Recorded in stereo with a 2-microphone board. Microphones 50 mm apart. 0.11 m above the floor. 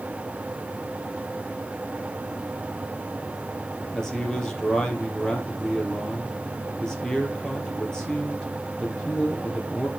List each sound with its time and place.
3.9 s a man speaking: 15° left (ahead or behind), 3 m